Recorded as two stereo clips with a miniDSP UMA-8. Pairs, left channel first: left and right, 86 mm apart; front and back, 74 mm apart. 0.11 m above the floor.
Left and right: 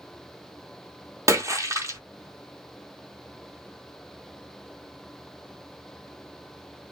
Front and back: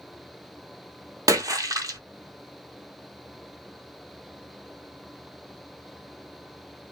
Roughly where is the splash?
Behind right.